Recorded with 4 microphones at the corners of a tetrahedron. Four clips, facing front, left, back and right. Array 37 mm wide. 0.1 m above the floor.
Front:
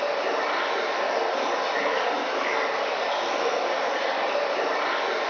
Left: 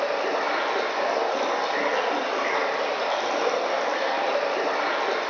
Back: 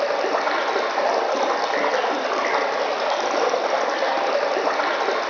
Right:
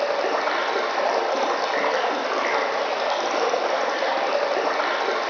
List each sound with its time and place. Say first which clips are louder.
0.0 s running water: right 2 dB, back 4 dB; 145° right, 3 m